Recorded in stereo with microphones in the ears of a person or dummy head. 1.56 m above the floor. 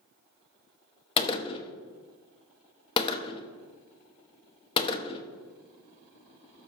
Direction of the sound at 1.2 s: 25° left (ahead or behind).